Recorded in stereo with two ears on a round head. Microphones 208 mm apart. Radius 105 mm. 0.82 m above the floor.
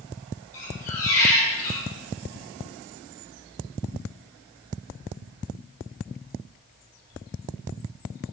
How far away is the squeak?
About 3 m.